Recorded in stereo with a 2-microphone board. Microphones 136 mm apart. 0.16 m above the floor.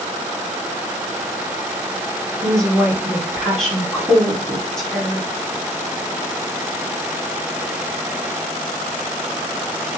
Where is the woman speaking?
5° left (ahead or behind), 1.0 m.